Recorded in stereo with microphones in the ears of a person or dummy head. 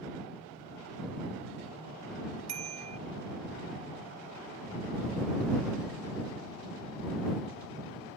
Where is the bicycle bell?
35° right (ahead or behind).